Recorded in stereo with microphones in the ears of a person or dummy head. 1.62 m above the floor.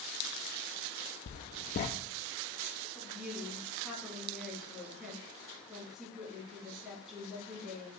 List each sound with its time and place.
1.3 s writing: 30° left (ahead or behind), 0.6 m
3.0 s a woman speaking: centre (ahead or behind), 3 m